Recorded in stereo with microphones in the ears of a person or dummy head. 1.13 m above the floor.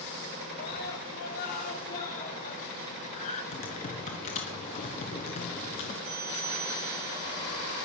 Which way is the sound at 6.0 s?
50° right (ahead or behind).